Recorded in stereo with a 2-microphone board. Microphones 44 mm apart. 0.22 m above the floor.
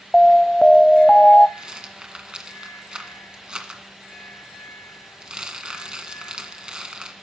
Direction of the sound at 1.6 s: 20° right (ahead or behind).